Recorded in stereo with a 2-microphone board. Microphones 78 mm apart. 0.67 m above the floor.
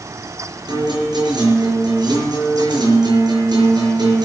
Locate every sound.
0.7 s a guitar: 70° right (ahead or behind), 5.5 m